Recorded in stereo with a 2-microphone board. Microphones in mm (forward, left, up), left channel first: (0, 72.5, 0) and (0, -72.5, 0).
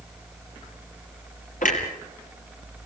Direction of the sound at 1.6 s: 65° left (ahead or behind).